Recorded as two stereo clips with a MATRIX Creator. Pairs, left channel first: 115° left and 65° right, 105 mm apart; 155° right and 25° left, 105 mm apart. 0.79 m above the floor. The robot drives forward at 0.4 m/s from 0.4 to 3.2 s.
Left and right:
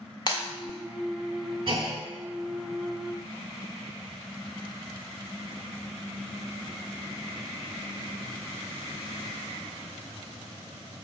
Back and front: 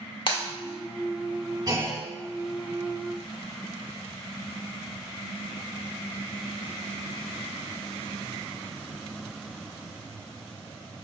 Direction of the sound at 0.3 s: 160° left.